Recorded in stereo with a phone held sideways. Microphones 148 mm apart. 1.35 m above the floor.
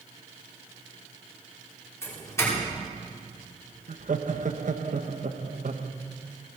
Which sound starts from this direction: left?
A doorbell, at 2.0 s.